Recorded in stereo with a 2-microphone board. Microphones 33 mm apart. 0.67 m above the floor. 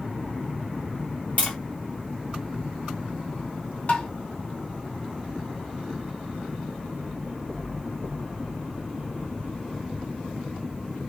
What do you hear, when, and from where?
1.4 s tapping: 40° left (ahead or behind), 1.5 m
3.9 s tapping: 45° left (ahead or behind), 0.6 m